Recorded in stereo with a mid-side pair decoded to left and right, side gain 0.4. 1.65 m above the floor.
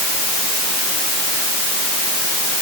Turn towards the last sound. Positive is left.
No sound to turn to.